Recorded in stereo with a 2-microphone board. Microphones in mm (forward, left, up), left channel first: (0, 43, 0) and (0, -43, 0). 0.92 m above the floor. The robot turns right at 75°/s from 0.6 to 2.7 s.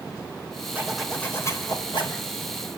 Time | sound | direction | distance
0.8 | a zipper | 20° right | 4 m